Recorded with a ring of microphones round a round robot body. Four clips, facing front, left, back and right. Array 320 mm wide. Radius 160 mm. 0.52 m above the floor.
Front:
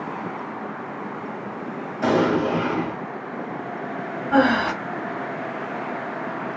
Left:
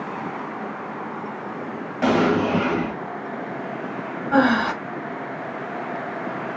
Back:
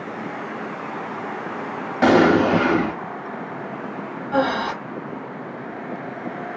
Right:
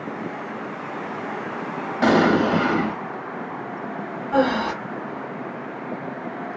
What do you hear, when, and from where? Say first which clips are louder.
2.0 s an explosion: right 2 dB, back 5 dB; 170° right, 1.0 m
4.3 s breathing: left 2 dB, front 3 dB; 60° left, 1.4 m